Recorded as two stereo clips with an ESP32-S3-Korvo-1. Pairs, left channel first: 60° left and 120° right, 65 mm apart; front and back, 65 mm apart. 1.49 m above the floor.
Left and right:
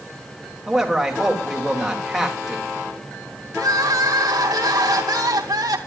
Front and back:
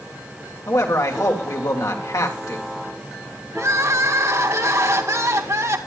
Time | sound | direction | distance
0.7 | a man speaking | 35° right | 3 m
3.5 | crying | 140° right | 2.0 m